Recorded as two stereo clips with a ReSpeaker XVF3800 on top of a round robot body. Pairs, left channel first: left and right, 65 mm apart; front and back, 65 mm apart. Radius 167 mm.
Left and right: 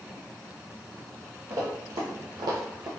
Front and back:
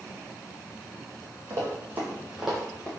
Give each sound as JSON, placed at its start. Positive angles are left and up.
{"t": 1.5, "sound": "running footsteps", "azimuth_deg": -130, "distance_m": 1.4}